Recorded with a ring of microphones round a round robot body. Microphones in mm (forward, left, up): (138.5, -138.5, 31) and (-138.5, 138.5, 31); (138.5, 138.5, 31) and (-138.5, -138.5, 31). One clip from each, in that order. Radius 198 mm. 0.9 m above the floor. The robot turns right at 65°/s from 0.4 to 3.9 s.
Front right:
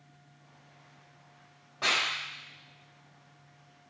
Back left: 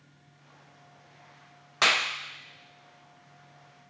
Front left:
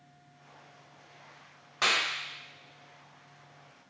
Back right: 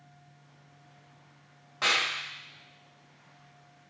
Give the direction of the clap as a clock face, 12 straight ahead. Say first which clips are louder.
Back left 4 dB, back right 1 dB; 8 o'clock.